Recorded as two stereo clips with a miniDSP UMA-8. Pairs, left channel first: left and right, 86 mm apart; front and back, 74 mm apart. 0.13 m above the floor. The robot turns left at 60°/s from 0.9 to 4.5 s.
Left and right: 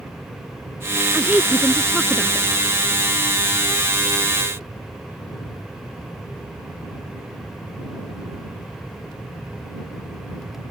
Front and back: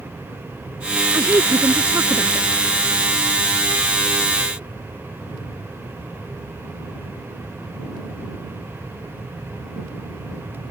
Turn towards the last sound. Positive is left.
turn(degrees=15)